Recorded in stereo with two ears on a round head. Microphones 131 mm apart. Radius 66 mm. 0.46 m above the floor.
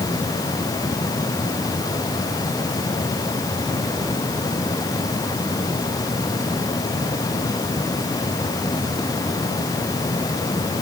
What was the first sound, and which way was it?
Only background noise.